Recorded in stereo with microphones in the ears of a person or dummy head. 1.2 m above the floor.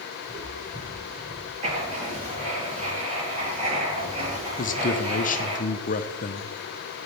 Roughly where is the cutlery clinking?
I don't hear cutlery clinking.